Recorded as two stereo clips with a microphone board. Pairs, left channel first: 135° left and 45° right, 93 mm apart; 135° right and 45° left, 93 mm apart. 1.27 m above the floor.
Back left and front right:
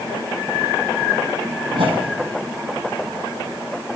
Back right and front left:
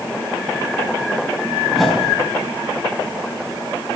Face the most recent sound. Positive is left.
turn(degrees=-45)